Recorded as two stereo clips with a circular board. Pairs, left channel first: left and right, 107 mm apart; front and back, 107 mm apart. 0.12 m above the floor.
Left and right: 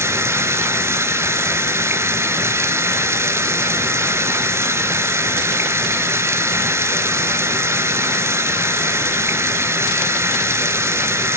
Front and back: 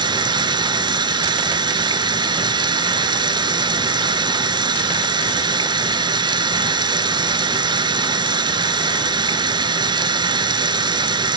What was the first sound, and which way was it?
Running water, 150° right.